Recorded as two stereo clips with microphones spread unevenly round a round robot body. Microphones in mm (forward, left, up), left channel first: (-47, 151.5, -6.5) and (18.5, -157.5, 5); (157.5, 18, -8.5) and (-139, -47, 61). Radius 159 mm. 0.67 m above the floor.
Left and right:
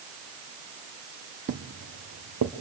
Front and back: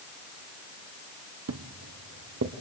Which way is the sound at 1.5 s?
140° right.